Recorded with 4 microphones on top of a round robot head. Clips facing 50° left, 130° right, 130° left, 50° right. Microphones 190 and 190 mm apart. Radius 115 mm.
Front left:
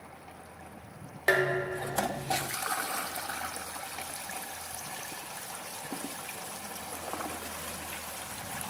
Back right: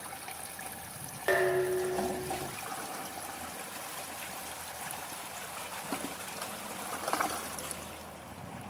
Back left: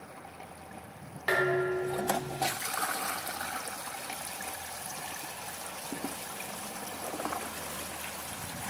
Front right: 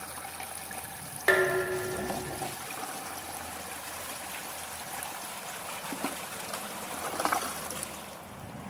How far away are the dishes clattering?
About 1.1 m.